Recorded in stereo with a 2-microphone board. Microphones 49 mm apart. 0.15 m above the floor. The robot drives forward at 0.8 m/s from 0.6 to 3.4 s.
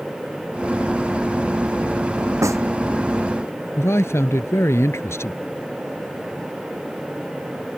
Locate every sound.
2.4 s a snare drum: 75° right (ahead or behind)
3.8 s a man speaking: 60° left (ahead or behind)